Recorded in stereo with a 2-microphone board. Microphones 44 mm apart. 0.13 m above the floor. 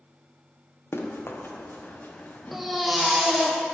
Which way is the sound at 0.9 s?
70° left (ahead or behind).